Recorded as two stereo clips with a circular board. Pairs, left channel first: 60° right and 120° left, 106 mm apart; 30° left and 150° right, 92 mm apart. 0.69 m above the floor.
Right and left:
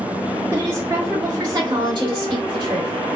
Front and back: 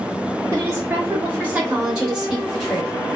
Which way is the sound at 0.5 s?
165° left.